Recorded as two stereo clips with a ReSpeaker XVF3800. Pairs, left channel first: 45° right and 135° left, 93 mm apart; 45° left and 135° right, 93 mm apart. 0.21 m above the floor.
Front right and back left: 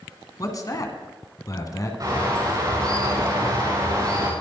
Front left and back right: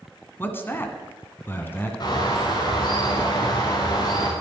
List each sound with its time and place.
0.4 s a man speaking: 15° right, 1.8 m
2.0 s a bird: 85° left, 6 m